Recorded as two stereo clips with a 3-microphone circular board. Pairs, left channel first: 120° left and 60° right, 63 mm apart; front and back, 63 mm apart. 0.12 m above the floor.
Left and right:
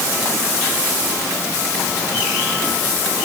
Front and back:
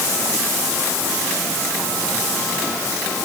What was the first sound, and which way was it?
Only background noise.